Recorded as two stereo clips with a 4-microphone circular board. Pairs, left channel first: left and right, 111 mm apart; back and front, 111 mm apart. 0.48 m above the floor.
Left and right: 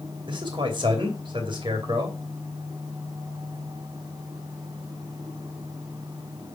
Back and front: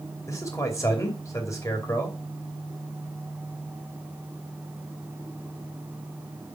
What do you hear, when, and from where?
0.3 s a man speaking: 125° right, 2.5 m